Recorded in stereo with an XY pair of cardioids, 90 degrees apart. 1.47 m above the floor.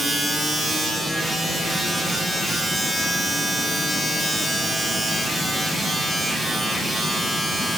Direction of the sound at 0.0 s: 10° right.